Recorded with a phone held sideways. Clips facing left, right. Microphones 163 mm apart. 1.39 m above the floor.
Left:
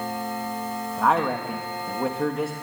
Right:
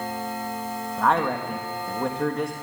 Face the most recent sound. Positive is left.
turn(degrees=5)  # may be behind; listen again after turning